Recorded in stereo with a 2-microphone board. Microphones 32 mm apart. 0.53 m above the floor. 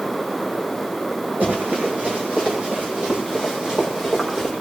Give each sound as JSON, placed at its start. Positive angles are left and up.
{"t": 1.4, "sound": "running footsteps", "side_deg": -50, "distance_m": 7.0}